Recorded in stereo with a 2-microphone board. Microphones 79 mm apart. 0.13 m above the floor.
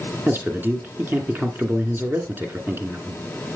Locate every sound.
0.3 s a man speaking: 25° right (ahead or behind), 1.9 m